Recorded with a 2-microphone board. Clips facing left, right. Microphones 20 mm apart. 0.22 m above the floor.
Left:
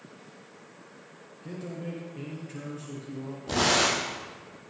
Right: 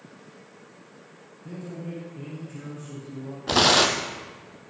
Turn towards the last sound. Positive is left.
turn(degrees=-55)  # may be behind; listen again after turning